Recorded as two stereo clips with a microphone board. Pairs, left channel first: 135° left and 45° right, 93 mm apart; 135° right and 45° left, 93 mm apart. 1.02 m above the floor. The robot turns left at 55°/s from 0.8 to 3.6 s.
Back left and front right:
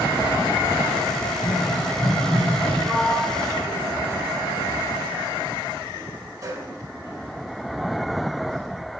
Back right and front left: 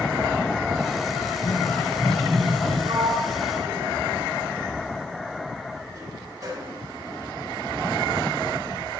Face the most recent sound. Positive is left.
turn(degrees=5)